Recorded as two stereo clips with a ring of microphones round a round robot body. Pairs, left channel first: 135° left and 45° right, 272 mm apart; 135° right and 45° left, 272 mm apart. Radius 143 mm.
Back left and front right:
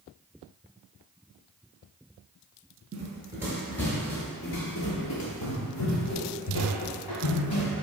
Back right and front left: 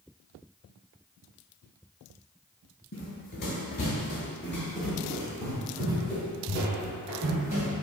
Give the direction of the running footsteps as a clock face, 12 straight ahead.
3 o'clock.